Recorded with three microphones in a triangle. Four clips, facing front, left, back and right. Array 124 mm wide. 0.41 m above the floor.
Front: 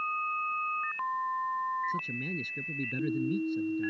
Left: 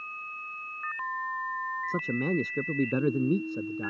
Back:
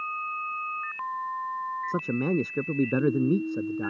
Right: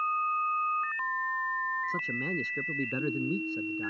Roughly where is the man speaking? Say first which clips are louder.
Left 5 dB, back 8 dB; behind left.